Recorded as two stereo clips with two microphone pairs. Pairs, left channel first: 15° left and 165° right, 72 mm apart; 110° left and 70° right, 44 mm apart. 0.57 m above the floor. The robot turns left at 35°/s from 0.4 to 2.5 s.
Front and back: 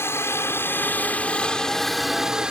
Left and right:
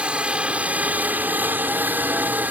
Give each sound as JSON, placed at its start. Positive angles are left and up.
{"t": 0.0, "sound": "a helicopter", "azimuth_deg": -20}